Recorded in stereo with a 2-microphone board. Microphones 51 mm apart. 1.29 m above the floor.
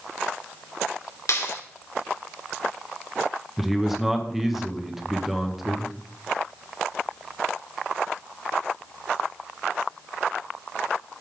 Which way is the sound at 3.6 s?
5° right (ahead or behind).